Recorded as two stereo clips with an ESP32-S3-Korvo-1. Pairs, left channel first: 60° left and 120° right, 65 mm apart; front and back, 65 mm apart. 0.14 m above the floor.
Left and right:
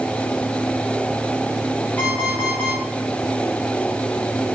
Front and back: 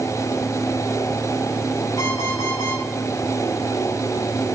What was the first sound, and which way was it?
An alarm clock, straight ahead.